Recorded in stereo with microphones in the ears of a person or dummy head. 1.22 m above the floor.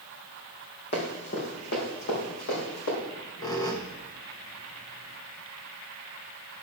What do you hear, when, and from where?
0.9 s running footsteps: 55° left (ahead or behind), 3.5 m; by 2.9 s 70° left (ahead or behind), 5.5 m
3.0 s a squeak: 20° left (ahead or behind), 0.6 m